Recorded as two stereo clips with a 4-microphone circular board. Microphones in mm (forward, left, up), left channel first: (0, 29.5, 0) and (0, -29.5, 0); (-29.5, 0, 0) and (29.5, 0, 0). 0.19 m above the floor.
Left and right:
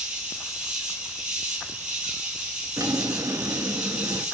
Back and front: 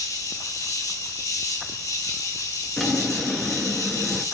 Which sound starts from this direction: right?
A drawer, at 2.8 s.